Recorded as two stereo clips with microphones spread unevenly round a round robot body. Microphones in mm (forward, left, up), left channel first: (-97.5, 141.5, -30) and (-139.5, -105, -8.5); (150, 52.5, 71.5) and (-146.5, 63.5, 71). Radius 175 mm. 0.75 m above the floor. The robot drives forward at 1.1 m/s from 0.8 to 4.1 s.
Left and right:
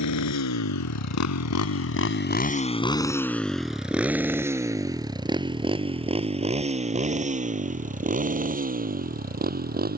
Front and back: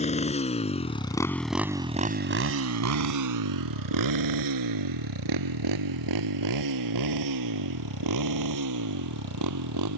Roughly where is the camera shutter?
No camera shutter in this recording.